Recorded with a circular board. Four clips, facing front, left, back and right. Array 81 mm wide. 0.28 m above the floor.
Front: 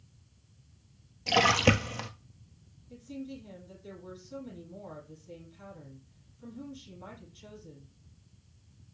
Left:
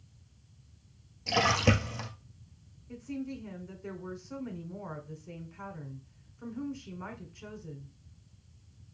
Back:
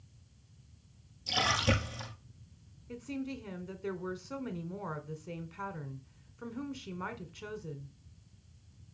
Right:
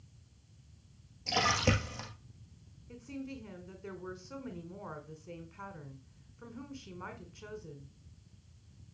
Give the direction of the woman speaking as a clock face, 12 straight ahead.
6 o'clock.